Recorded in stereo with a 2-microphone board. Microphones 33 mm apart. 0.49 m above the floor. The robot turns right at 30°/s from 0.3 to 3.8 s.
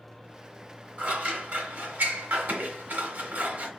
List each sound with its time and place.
1.0 s scissors: 45° right (ahead or behind), 0.9 m; by 3.7 s 50° right (ahead or behind), 0.9 m